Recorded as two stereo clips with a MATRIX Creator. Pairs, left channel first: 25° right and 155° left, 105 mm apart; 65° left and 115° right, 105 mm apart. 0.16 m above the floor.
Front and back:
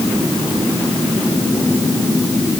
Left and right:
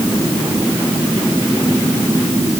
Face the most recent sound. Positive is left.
No sound to turn to.